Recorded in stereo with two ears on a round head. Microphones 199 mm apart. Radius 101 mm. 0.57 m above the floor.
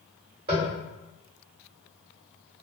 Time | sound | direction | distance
0.5 | tapping | 50° right (ahead or behind) | 1.9 m